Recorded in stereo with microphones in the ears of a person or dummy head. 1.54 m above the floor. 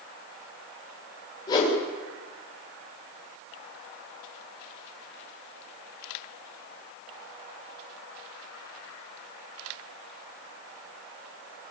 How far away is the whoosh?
About 6.5 m.